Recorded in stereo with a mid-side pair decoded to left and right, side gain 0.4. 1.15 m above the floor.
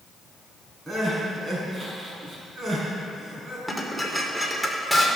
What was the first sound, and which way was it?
Crying, 25° right.